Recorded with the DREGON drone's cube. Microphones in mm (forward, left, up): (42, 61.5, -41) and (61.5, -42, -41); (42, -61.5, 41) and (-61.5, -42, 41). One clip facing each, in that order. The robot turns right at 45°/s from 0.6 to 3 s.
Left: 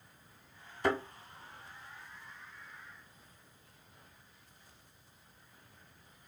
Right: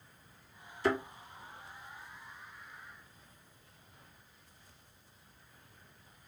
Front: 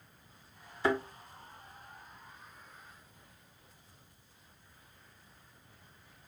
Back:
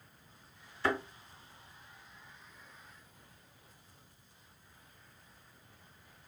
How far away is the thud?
About 1.6 m.